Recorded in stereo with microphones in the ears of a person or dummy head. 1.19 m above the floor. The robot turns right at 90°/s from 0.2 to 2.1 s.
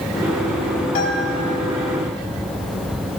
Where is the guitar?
45° left, 3 m; by 1.4 s 80° left, 3 m.